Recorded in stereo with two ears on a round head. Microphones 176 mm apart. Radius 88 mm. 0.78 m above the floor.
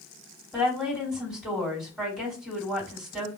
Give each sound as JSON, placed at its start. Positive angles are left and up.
{"t": 0.5, "sound": "a woman speaking", "side_deg": -5, "distance_m": 2.0}